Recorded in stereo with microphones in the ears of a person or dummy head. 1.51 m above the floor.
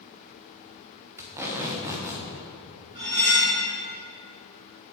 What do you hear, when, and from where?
1.2 s tape being pulled: 15° right (ahead or behind), 0.5 m
3.0 s cutlery clinking: 30° right (ahead or behind), 1.3 m